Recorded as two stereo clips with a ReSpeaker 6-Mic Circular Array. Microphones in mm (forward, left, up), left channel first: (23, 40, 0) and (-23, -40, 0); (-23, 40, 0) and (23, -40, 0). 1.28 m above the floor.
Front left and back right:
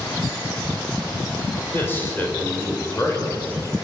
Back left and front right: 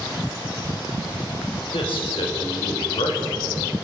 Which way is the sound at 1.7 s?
125° left.